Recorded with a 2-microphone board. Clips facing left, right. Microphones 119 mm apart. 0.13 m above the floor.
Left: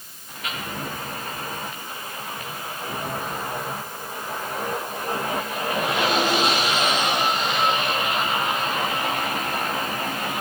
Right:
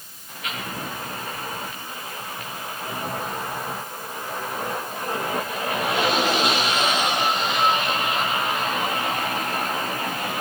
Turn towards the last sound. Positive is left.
No sound to turn to.